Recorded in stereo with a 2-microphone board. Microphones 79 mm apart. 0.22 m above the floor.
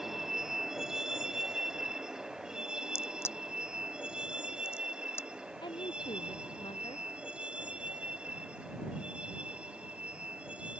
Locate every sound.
0.0 s a vehicle: 5° right (ahead or behind); by 10.8 s 15° right (ahead or behind)
3.0 s a crack: 30° left (ahead or behind)
5.6 s a woman speaking: 85° left